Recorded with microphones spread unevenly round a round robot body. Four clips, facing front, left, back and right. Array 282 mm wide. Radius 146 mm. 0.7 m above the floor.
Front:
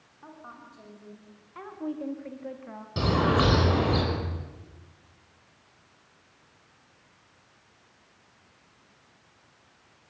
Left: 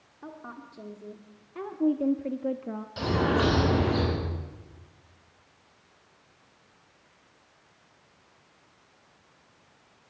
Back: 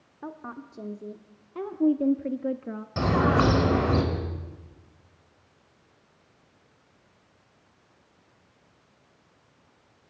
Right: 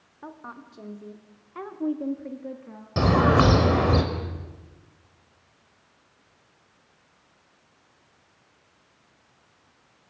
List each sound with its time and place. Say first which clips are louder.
0.2 s a woman speaking: right 1 dB, back 7 dB; 175° right, 2.0 m; by 2.9 s 130° left, 0.9 m
3.0 s a bird: right 6 dB, back 2 dB; 85° right, 4.5 m